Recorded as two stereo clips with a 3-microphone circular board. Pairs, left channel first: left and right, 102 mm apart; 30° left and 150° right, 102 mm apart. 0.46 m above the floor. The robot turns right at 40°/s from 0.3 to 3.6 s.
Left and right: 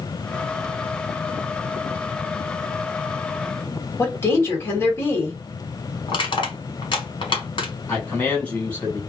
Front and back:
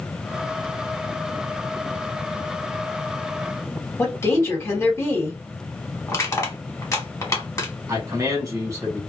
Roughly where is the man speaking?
Behind.